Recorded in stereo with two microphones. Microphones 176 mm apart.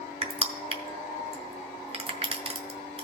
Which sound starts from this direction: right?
Crushing, at 0.2 s.